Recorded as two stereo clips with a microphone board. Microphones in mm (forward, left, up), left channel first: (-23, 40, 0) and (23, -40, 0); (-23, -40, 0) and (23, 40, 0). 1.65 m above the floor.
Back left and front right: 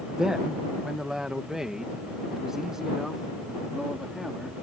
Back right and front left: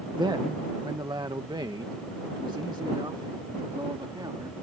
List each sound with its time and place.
0.2 s a man speaking: 25° left